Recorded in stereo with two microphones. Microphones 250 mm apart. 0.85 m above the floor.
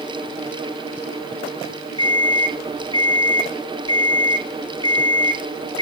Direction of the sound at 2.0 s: 70° right (ahead or behind).